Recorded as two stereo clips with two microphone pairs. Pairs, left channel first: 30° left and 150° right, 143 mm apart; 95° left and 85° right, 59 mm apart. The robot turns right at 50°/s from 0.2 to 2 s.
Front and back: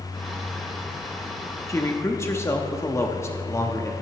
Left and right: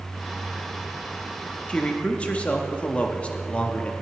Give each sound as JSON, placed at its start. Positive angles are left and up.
{"t": 1.7, "sound": "a man speaking", "azimuth_deg": 50, "distance_m": 0.7}